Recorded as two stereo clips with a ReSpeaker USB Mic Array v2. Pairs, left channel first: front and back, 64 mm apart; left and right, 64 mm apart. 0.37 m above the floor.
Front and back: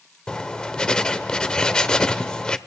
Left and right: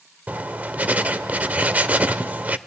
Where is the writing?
60° right, 0.7 m.